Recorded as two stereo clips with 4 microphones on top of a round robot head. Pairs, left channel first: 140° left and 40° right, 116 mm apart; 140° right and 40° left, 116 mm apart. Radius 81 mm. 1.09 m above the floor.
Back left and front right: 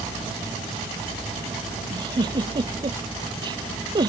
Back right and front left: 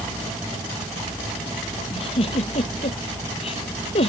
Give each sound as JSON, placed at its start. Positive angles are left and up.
{"t": 1.9, "sound": "a giggle", "azimuth_deg": -95}